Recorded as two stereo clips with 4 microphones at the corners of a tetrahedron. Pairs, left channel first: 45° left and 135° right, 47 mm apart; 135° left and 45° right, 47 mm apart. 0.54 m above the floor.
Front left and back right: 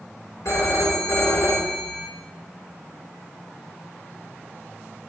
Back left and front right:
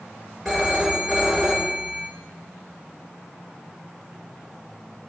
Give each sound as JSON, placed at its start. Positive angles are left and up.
{"t": 0.5, "sound": "a phone ringing", "azimuth_deg": 55, "distance_m": 5.0}